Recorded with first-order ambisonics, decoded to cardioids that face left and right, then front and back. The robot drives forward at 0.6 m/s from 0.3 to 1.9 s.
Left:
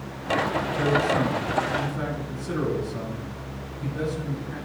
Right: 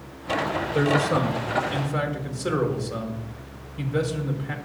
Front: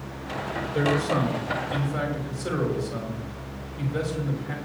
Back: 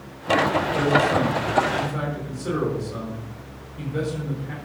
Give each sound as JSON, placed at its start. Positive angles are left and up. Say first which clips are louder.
{"t": 0.7, "sound": "a man speaking", "louder": "right 1 dB, back 3 dB", "azimuth_deg": -70, "distance_m": 5.0}